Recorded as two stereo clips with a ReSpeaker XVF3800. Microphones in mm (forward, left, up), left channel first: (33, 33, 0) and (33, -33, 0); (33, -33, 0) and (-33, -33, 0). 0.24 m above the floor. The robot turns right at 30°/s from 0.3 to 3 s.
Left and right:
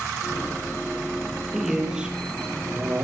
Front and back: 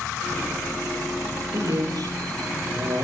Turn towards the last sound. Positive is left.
turn(degrees=-135)